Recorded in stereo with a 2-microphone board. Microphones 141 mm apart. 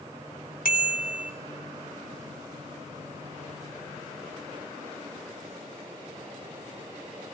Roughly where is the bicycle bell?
Left.